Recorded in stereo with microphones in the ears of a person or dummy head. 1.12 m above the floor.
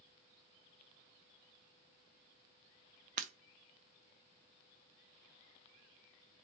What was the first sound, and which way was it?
Breaking glass, 40° right (ahead or behind).